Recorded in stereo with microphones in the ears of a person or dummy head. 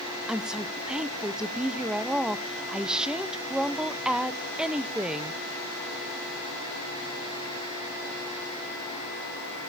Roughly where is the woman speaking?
Centre.